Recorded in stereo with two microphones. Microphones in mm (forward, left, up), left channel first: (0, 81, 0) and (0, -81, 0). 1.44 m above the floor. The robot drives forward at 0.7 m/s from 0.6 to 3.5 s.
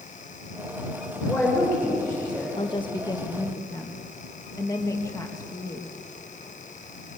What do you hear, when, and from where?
1.2 s a man speaking: 5° right (ahead or behind), 5.5 m
2.6 s a woman speaking: 35° left (ahead or behind), 0.9 m; by 5.9 s 20° left (ahead or behind), 1.4 m